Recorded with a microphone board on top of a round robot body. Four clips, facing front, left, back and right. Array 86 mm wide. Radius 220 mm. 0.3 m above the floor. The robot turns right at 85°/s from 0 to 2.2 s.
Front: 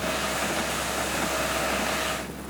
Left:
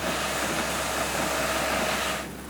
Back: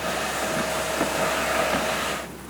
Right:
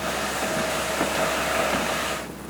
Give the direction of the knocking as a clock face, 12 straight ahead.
I don't hear knocking.